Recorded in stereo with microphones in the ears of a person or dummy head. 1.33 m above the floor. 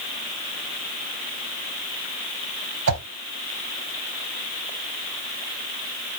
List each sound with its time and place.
2.9 s a whoosh: 70° right (ahead or behind), 0.8 m